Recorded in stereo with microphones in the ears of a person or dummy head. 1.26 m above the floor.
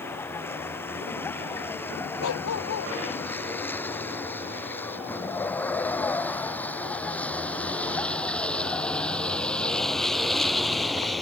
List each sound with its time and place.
0.0 s a vehicle: 15° left (ahead or behind); by 11.2 s 5° left (ahead or behind)
2.2 s a dog barking: 80° left